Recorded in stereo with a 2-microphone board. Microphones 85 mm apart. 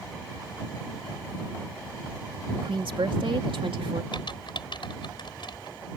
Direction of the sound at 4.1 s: 70° left (ahead or behind).